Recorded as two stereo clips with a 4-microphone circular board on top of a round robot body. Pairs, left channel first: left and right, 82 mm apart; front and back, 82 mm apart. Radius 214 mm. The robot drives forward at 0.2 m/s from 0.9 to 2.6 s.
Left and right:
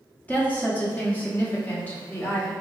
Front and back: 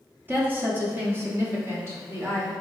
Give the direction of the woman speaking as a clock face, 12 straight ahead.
7 o'clock.